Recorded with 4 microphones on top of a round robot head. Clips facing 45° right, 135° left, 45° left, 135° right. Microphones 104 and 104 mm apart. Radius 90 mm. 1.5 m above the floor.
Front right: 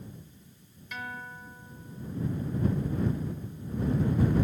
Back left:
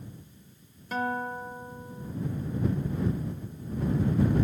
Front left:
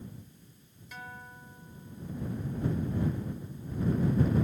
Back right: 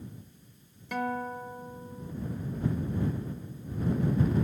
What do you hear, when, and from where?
0.9 s a guitar: 165° right